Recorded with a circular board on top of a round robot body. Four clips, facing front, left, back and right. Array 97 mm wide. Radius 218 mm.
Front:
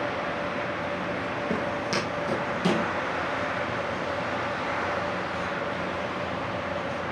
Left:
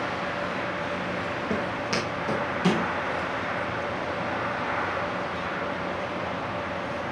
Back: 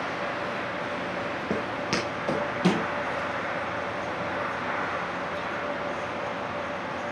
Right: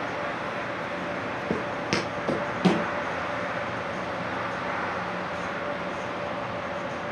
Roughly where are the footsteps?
Right.